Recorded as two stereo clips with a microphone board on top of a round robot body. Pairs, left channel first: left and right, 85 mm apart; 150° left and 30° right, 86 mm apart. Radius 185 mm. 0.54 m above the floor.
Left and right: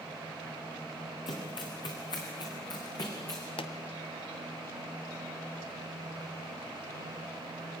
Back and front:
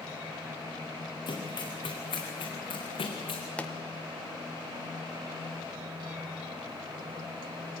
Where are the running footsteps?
115° left, 4 m; by 3.4 s 135° left, 3.5 m.